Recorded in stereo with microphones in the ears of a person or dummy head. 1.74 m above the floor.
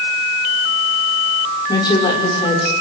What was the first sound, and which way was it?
A woman speaking, 25° left (ahead or behind).